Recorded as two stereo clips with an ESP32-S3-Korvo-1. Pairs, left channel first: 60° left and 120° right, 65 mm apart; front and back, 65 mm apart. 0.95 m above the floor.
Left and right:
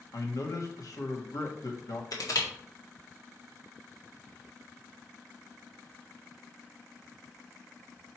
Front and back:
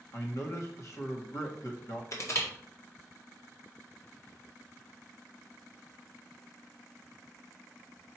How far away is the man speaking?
About 1.5 m.